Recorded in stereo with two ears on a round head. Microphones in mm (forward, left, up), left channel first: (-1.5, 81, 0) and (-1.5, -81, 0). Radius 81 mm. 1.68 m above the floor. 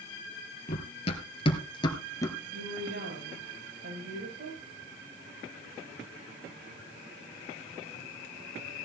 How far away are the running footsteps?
About 2 m.